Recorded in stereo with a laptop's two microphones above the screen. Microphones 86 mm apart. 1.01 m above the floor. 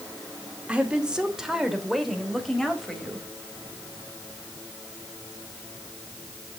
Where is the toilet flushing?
I don't hear a toilet flushing.